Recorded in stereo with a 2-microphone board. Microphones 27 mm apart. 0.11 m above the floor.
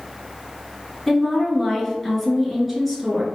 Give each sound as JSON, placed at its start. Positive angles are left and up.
{"t": 1.1, "sound": "a woman speaking", "side_deg": 0, "distance_m": 1.5}